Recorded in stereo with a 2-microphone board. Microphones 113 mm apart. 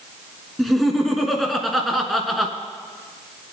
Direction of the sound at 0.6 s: Centre (ahead or behind).